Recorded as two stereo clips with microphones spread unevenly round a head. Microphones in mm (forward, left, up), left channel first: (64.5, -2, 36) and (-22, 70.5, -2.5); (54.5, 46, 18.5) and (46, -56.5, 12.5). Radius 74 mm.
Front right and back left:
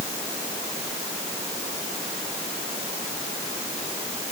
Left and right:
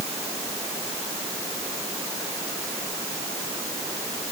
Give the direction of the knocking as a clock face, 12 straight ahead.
I don't hear knocking.